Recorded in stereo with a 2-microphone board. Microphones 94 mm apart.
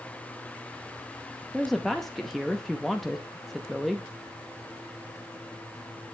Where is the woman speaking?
5° left (ahead or behind), 0.8 m.